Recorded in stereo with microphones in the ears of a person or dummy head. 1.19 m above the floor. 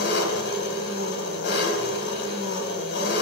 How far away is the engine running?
About 3.5 m.